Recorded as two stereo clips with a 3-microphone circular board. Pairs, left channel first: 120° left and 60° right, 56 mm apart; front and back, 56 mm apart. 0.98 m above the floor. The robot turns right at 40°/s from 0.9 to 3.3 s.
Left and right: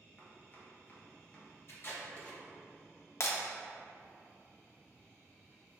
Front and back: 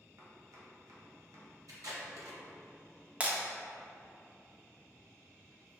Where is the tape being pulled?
165° left, 1.4 m; by 2.4 s 170° right, 1.4 m.